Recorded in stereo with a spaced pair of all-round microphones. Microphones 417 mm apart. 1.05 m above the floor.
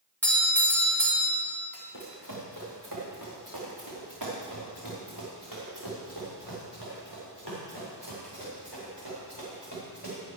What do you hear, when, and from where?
0.2 s a doorbell: 5° left (ahead or behind), 3 m
1.7 s running footsteps: 40° right (ahead or behind), 3.5 m; by 10.2 s 60° right (ahead or behind), 8 m